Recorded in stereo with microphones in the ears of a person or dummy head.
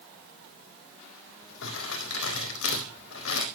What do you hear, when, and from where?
1.6 s crumpling: 65° left (ahead or behind), 3.5 m